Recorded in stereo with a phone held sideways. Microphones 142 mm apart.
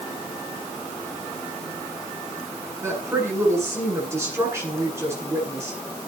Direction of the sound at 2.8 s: 20° right (ahead or behind).